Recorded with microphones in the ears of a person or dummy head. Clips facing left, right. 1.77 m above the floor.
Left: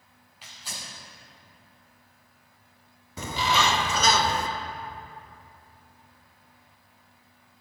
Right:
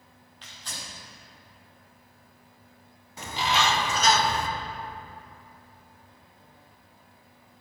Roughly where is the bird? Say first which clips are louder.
Left 1 dB; left.